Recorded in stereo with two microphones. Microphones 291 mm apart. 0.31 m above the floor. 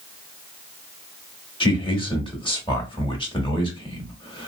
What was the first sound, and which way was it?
A man speaking, 15° left (ahead or behind).